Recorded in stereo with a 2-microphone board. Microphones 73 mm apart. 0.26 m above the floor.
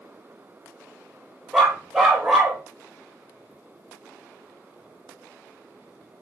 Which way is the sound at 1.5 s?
10° right (ahead or behind).